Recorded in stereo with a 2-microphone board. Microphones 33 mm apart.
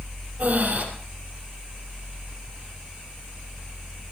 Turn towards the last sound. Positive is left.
turn(degrees=-50)  # may be behind; listen again after turning